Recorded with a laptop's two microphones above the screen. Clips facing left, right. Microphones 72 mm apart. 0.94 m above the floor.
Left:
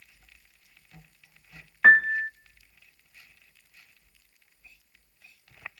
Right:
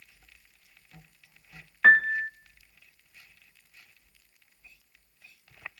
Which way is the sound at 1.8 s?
10° left (ahead or behind).